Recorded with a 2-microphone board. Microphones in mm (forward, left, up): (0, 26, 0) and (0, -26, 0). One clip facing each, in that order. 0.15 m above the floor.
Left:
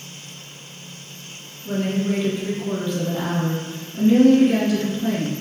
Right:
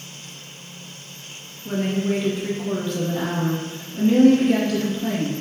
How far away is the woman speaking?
About 1.4 m.